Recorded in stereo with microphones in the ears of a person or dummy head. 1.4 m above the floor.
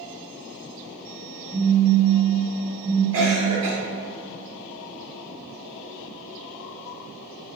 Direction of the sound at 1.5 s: 40° left (ahead or behind).